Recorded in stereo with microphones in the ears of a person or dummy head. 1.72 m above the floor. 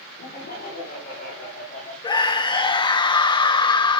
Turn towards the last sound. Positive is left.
turn(degrees=25)  # may be behind; listen again after turning